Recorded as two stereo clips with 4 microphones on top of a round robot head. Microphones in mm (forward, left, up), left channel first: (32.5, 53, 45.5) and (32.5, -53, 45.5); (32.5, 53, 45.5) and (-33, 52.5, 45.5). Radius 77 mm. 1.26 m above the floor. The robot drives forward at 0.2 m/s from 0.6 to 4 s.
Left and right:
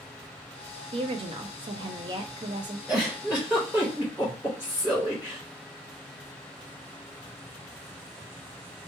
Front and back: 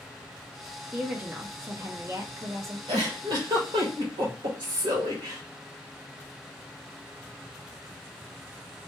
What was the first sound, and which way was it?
A woman speaking, 105° right.